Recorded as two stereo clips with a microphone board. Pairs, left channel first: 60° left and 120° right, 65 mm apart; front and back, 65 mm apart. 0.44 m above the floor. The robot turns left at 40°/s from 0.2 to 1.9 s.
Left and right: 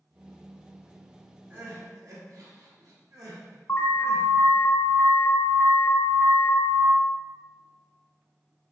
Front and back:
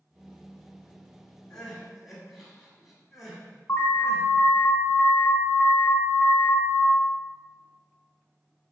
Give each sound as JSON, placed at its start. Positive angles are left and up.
{"t": 1.5, "sound": "crying", "azimuth_deg": -80, "distance_m": 1.3}
{"t": 3.7, "sound": "an alarm", "azimuth_deg": 35, "distance_m": 1.0}